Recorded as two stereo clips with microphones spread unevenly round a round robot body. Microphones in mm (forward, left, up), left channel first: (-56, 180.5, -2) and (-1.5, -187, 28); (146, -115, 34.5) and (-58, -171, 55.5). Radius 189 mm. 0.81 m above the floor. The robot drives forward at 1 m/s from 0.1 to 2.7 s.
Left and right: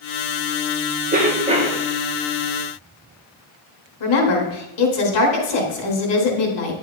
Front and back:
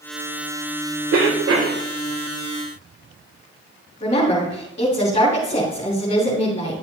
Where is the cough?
150° right, 3 m; by 1.8 s 155° right, 3.5 m.